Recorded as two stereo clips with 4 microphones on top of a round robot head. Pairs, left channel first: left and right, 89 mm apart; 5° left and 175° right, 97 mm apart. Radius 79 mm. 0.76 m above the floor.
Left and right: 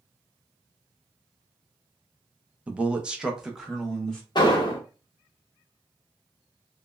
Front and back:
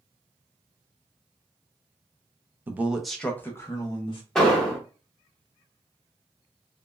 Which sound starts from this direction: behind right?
A man speaking, at 2.7 s.